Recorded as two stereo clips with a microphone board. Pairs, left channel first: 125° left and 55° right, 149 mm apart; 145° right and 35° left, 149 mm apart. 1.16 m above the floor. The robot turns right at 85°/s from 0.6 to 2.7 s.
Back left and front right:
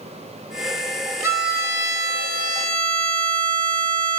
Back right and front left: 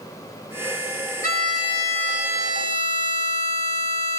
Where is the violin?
130° right, 1.4 m; by 4.2 s 5° right, 1.4 m.